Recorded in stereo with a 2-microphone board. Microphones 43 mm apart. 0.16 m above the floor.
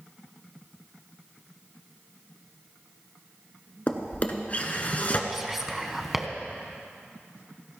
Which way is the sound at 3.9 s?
35° left (ahead or behind).